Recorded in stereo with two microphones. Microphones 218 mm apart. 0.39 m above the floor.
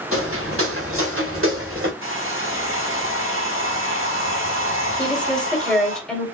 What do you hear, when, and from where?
0.1 s footsteps: 75° right (ahead or behind), 2.5 m; by 1.9 s 65° right (ahead or behind), 3.5 m
2.0 s a hair dryer: 60° right (ahead or behind), 3 m
5.0 s a woman speaking: 5° left (ahead or behind), 1.4 m